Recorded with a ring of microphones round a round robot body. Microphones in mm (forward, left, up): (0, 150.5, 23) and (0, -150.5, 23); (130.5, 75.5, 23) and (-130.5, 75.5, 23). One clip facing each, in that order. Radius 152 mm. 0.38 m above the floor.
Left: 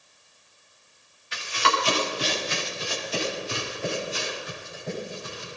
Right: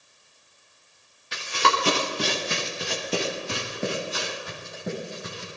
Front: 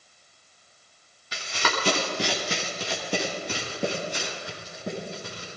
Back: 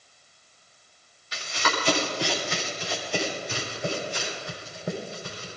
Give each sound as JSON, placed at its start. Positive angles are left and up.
{"t": 1.3, "sound": "running footsteps", "azimuth_deg": -40, "distance_m": 3.5}